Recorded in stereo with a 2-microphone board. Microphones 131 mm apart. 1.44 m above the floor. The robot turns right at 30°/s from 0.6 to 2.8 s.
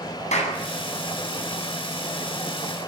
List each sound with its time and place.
0.3 s a clap: 60° left (ahead or behind), 9 m